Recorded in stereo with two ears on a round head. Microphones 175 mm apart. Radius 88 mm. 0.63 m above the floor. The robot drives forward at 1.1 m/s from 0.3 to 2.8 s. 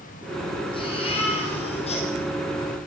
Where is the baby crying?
30° left (ahead or behind), 7.5 m; by 2.1 s 35° left (ahead or behind), 6.5 m.